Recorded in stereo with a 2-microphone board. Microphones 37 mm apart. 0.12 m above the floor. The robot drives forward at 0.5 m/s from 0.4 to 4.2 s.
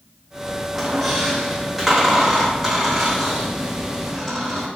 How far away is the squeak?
About 3 m.